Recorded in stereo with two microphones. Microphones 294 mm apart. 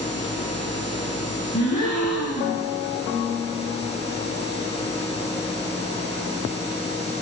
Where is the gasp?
75° left (ahead or behind), 6 m.